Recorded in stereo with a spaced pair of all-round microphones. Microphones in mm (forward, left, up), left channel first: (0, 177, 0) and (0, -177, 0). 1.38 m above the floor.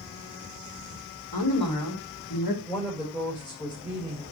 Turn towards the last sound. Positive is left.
turn(degrees=15)  # may be behind; listen again after turning